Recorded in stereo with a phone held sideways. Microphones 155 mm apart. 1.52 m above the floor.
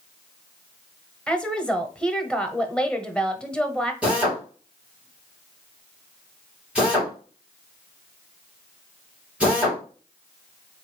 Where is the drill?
10° right (ahead or behind), 2.5 m.